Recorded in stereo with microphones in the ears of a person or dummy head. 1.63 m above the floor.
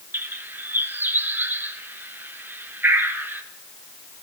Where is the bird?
10° right (ahead or behind), 1.3 m.